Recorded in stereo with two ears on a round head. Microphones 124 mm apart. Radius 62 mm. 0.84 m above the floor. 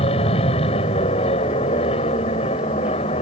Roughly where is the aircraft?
Left.